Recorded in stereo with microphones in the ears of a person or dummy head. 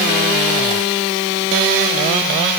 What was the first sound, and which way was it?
Only background noise.